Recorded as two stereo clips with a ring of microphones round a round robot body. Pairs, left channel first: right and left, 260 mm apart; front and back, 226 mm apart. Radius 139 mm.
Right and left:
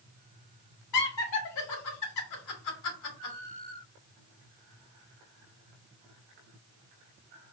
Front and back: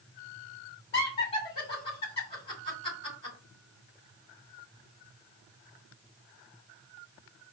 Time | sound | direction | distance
0.9 | laughter | 70° right | 2.5 m